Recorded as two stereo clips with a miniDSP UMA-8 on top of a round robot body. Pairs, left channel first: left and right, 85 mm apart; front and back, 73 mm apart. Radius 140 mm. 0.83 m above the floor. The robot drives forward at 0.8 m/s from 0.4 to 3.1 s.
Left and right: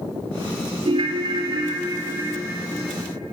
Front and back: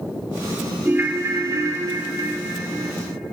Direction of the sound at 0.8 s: 110° right.